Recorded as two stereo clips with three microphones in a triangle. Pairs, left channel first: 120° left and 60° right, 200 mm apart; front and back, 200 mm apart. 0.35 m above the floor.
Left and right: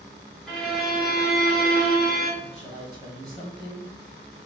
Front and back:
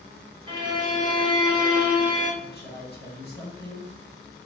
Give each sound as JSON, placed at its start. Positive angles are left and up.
{"t": 0.5, "sound": "a violin", "azimuth_deg": -160, "distance_m": 1.4}
{"t": 2.4, "sound": "a woman speaking", "azimuth_deg": 0, "distance_m": 1.9}